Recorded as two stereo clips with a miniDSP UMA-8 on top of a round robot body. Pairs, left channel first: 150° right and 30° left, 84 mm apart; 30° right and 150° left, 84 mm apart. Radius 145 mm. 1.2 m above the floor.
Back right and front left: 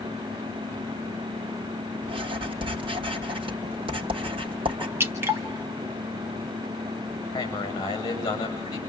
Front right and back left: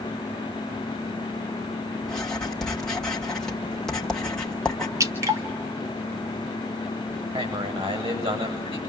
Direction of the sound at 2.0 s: 55° left.